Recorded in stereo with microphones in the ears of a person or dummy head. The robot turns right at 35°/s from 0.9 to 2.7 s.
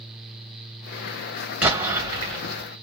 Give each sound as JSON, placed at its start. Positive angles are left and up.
{"t": 1.6, "sound": "an explosion", "azimuth_deg": -170, "distance_m": 2.5}